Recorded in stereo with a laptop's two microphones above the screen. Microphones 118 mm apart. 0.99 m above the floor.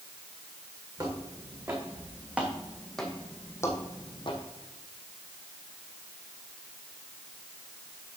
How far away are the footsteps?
About 3.5 m.